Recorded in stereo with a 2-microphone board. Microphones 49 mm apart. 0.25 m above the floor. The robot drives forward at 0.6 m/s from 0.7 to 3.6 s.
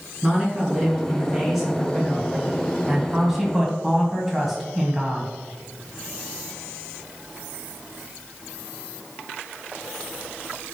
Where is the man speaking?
5° right (ahead or behind), 3.5 m.